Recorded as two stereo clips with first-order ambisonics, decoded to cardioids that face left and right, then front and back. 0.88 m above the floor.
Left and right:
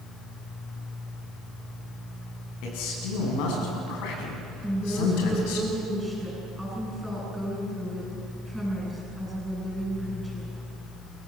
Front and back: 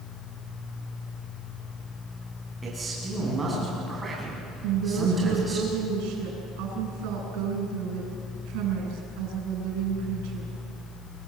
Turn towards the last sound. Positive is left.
turn(degrees=180)